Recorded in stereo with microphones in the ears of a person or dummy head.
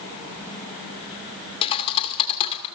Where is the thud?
35° left (ahead or behind), 2.5 m.